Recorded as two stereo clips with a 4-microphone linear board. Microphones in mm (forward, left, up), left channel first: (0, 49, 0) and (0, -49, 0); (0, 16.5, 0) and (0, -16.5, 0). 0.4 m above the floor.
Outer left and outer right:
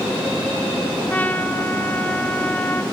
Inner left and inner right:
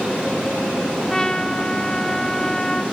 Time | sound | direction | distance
1.1 | a trumpet | 15° left (ahead or behind) | 2.0 m